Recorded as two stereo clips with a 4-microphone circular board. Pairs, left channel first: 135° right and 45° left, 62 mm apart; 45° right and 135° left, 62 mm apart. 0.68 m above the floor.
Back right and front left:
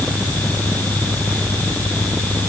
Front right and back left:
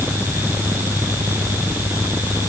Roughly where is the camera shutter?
I don't hear a camera shutter.